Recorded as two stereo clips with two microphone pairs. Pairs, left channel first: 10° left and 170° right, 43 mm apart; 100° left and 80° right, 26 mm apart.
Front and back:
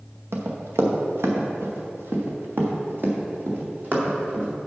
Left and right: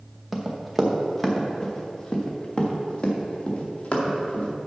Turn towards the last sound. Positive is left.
turn(degrees=140)